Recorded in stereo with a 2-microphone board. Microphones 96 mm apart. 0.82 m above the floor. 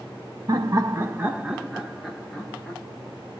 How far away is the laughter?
About 0.9 m.